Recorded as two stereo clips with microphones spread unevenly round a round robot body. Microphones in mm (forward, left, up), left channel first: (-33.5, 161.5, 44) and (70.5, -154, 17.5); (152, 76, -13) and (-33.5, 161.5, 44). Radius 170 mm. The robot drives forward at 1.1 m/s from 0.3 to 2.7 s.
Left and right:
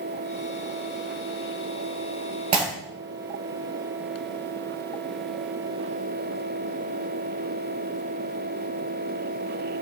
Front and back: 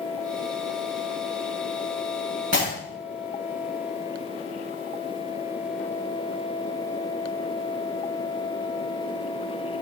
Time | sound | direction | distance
2.5 | breaking glass | 150° right | 2.5 m